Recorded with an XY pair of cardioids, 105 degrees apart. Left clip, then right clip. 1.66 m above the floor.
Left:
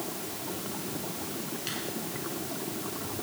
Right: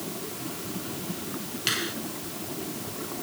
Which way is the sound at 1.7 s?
60° right.